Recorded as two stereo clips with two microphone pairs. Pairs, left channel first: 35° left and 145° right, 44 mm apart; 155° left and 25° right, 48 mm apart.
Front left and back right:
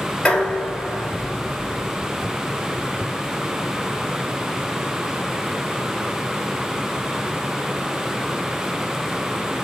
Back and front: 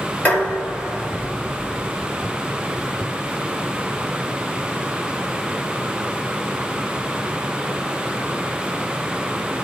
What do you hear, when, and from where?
0.2 s dishes clattering: 100° left, 1.5 m